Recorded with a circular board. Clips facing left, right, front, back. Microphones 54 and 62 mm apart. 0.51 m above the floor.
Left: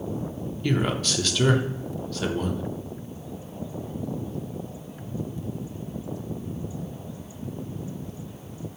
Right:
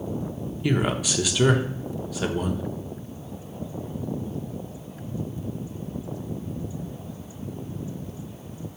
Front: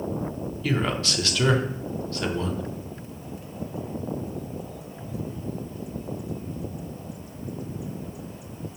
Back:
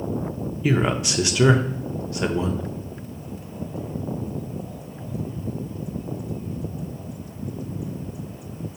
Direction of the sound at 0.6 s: 150° right.